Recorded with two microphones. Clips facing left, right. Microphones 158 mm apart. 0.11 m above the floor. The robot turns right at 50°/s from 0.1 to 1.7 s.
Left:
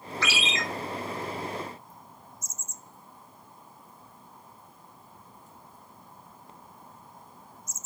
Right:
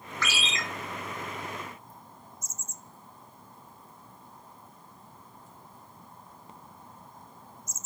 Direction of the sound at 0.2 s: 50° right (ahead or behind).